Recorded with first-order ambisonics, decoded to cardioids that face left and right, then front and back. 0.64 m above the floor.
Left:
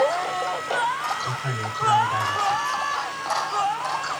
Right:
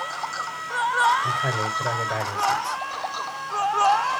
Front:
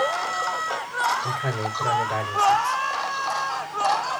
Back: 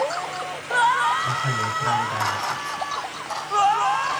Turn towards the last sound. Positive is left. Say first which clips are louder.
# right 4 dB, back 3 dB
turn(degrees=-60)